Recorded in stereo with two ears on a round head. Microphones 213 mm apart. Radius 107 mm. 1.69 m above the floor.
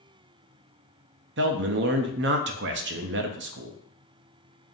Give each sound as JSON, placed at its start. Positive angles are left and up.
{"t": 1.4, "sound": "a man speaking", "side_deg": -50, "distance_m": 0.5}